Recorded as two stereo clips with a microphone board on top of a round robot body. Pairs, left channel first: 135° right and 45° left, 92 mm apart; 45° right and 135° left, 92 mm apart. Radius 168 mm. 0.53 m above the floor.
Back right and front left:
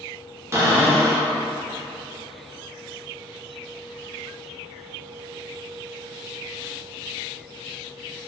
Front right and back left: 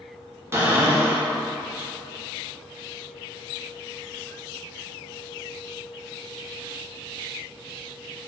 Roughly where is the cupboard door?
Left.